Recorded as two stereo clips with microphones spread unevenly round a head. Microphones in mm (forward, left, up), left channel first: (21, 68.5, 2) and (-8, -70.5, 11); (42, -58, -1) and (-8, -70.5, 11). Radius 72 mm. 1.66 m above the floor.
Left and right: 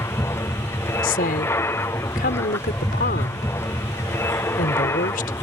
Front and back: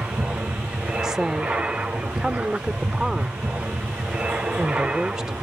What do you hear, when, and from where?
0.0 s an aircraft: 130° left
1.0 s a woman speaking: 110° left